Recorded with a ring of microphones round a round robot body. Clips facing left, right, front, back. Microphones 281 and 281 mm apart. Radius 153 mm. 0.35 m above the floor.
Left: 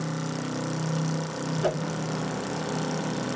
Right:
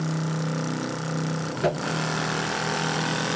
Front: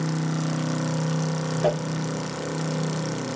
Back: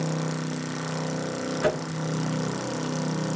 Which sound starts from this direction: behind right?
A whoosh, at 1.6 s.